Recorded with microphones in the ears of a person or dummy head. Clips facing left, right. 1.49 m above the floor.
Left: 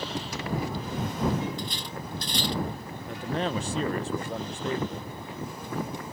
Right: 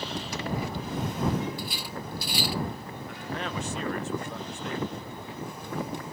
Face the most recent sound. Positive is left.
turn(degrees=30)  # may be behind; listen again after turning